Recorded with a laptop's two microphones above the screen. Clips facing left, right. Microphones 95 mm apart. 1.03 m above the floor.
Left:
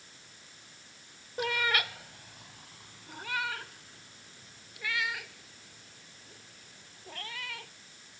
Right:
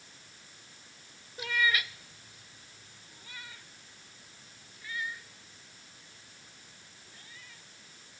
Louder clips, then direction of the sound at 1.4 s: Even; 55° left (ahead or behind).